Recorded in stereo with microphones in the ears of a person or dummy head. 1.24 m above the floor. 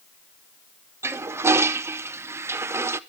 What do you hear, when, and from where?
1.0 s a toilet flushing: 15° right (ahead or behind), 0.6 m